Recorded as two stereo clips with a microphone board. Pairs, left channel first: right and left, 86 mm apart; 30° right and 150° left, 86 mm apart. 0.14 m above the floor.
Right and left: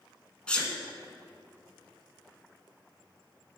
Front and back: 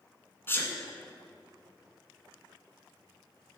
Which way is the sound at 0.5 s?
25° right.